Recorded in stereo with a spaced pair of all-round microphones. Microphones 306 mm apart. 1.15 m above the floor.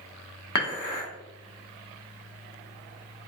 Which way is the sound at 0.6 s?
75° left (ahead or behind).